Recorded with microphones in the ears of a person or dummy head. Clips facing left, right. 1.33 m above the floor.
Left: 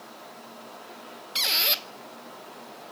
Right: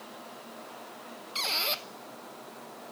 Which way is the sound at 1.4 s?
15° left (ahead or behind).